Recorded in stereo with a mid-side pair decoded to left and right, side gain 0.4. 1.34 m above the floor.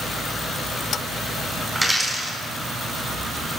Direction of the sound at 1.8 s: 10° right.